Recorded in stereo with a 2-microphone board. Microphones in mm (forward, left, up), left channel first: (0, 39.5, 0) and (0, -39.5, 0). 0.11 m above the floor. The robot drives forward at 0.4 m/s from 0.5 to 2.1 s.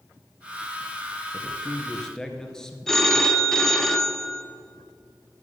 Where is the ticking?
I don't hear ticking.